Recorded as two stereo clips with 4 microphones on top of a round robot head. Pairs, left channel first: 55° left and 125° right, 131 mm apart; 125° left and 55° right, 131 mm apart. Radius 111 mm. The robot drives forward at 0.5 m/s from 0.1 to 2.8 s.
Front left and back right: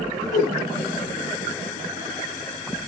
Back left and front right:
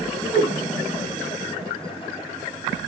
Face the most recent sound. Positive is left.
turn(degrees=40)